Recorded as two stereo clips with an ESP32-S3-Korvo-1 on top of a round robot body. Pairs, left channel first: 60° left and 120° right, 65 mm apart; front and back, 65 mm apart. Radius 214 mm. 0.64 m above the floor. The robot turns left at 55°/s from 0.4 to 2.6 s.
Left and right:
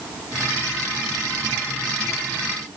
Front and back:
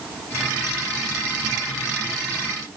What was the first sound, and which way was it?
Only background noise.